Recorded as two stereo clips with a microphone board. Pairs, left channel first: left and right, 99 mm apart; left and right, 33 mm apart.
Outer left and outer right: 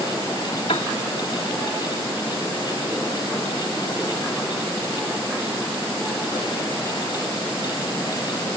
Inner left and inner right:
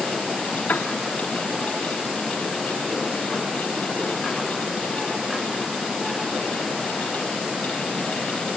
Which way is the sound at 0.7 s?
80° left.